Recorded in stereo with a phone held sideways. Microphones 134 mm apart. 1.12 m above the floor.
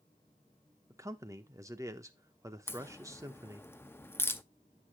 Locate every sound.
0.9 s a man speaking: 25° right (ahead or behind), 0.8 m
2.7 s a crack: 15° left (ahead or behind), 0.6 m